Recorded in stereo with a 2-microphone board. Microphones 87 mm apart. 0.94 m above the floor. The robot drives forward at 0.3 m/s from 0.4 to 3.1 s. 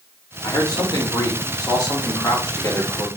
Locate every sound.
0.4 s a man speaking: 50° left (ahead or behind), 1.6 m; by 3.1 s 35° left (ahead or behind), 2 m